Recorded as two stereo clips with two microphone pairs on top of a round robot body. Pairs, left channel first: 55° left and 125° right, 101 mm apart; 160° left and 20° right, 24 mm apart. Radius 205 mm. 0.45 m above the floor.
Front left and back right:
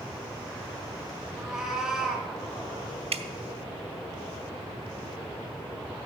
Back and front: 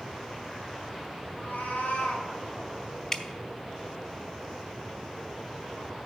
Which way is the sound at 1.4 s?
145° left.